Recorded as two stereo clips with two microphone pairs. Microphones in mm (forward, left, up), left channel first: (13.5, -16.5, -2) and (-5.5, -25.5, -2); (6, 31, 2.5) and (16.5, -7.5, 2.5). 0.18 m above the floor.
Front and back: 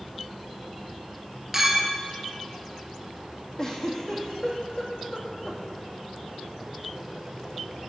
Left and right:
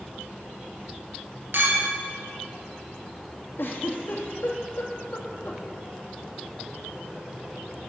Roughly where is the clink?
Right.